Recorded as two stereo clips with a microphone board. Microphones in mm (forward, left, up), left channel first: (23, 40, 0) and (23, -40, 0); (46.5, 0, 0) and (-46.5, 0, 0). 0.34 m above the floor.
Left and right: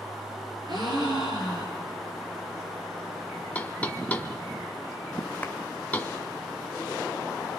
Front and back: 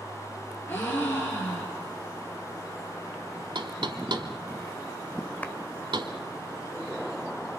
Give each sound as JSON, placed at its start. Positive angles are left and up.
{"t": 0.7, "sound": "a gasp", "azimuth_deg": -65, "distance_m": 7.0}
{"t": 3.5, "sound": "knocking", "azimuth_deg": 160, "distance_m": 1.6}
{"t": 5.4, "sound": "a clap", "azimuth_deg": 55, "distance_m": 1.2}